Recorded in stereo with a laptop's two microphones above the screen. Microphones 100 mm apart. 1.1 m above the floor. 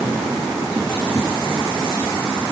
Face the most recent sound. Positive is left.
No sound to turn to.